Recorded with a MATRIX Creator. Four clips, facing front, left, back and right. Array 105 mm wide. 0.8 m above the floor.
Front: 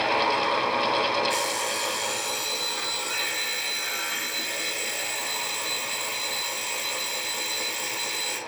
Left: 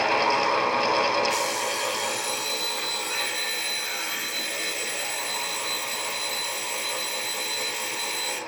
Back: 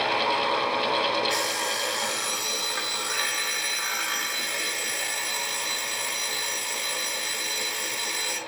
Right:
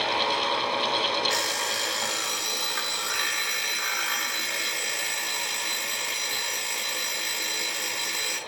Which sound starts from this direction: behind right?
An alarm clock, at 1.3 s.